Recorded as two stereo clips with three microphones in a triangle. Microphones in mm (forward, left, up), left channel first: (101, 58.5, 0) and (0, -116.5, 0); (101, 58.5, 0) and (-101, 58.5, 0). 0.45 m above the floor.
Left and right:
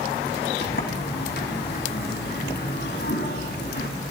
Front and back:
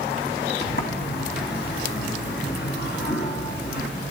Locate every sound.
0.6 s a sliding door: 30° left, 3 m